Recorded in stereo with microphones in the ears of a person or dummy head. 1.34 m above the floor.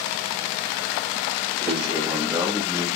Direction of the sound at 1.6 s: 35° right (ahead or behind).